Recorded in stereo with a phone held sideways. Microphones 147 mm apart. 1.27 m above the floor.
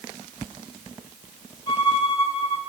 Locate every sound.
1.7 s a violin: 25° left (ahead or behind), 4 m